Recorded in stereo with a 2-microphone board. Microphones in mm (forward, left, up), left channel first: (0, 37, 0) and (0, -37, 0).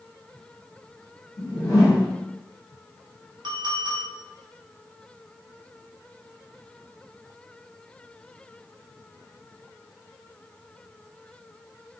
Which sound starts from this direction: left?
A whoosh, at 1.4 s.